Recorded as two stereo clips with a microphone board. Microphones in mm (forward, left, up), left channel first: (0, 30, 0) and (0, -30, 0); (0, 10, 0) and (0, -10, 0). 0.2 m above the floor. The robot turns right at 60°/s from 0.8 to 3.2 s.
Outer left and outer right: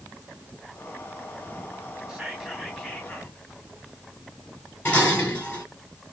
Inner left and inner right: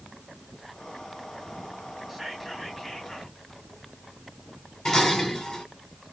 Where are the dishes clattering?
25° left (ahead or behind), 2 m.